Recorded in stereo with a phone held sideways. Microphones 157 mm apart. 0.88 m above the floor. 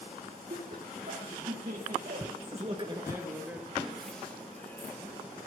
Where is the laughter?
60° right (ahead or behind), 2.5 m; by 5.0 s 15° left (ahead or behind), 3 m.